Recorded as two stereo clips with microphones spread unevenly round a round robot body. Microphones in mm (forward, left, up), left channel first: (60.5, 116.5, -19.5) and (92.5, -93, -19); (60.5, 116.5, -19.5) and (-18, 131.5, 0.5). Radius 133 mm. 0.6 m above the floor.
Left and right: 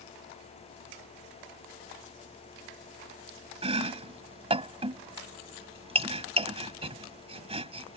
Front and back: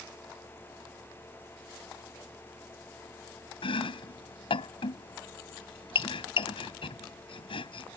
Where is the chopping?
20° right.